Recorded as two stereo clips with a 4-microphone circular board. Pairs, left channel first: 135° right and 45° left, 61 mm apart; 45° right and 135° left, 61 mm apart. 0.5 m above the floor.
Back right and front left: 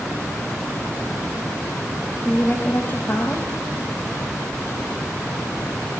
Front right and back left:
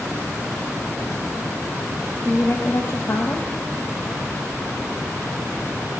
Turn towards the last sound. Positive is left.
turn(degrees=-80)